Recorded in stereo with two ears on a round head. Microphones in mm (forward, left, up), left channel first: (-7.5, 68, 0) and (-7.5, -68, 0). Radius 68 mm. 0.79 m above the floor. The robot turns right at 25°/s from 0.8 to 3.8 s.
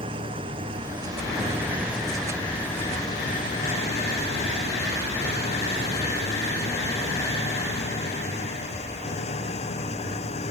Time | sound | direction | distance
0.0 | an engine running | 35° right | ?